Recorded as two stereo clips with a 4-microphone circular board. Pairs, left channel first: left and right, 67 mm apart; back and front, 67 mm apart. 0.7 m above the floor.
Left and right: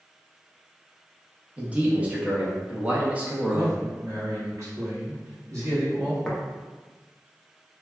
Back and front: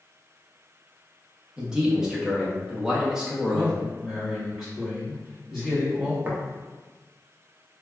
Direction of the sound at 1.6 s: 65° right.